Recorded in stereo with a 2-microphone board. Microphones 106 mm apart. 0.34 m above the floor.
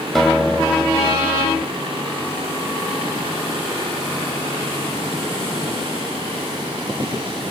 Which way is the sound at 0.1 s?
5° left (ahead or behind).